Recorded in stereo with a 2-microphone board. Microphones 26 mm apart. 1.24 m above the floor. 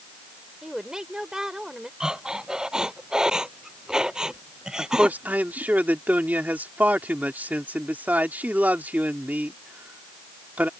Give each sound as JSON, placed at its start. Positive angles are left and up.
{"t": 0.6, "sound": "a woman speaking", "side_deg": -20}
{"t": 2.0, "sound": "breathing", "side_deg": -25}
{"t": 4.8, "sound": "a man speaking", "side_deg": -90}